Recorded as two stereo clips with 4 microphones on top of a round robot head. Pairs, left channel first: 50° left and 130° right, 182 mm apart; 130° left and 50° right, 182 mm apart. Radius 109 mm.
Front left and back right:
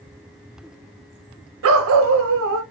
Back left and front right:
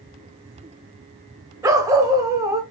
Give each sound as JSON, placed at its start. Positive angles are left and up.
{"t": 1.6, "sound": "a dog barking", "azimuth_deg": -125, "distance_m": 0.7}